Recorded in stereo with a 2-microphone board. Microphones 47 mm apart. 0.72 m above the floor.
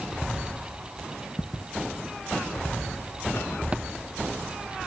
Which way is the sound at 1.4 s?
40° left (ahead or behind).